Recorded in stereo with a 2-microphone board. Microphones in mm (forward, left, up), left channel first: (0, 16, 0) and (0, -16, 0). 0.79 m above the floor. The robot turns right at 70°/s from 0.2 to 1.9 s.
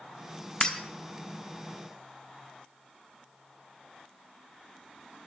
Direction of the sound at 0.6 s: 25° left (ahead or behind).